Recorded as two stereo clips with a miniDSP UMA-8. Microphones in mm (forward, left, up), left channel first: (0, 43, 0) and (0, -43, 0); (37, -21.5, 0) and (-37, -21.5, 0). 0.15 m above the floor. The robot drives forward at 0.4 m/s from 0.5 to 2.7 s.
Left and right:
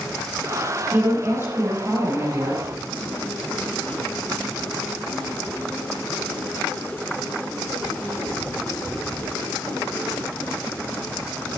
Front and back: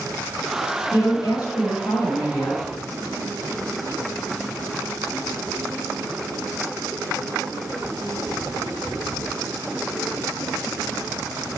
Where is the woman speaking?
30° right, 5.5 m; by 2.6 s 35° right, 5 m.